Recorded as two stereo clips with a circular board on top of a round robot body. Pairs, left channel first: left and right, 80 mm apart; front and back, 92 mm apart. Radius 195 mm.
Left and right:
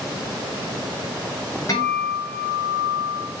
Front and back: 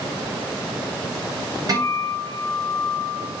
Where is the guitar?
135° left, 3.5 m.